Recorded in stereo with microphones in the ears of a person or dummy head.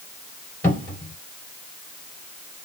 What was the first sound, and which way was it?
A cupboard door, 15° left (ahead or behind).